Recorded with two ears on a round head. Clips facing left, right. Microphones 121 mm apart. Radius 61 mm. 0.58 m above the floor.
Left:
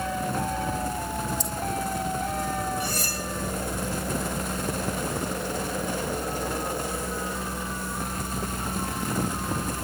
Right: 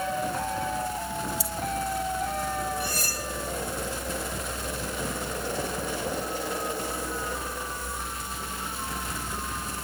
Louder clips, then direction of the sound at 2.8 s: Left 2 dB; 65° left (ahead or behind).